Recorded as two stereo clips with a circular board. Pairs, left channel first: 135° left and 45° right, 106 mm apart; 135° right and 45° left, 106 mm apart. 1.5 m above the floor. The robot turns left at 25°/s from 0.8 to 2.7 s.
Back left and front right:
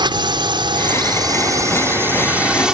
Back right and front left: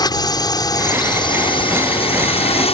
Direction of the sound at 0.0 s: 85° right.